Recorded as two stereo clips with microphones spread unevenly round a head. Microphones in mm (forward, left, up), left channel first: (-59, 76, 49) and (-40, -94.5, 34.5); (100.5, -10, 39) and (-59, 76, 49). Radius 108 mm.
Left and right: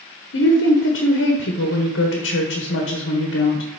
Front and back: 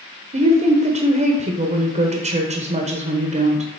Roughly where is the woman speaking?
Left.